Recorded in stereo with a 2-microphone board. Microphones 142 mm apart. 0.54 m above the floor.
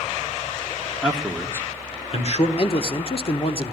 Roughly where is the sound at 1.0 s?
Centre.